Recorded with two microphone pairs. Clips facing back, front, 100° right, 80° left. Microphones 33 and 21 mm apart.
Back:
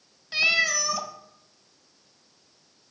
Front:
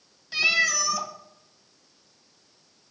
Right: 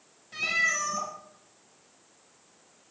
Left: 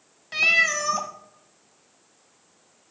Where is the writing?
I don't hear writing.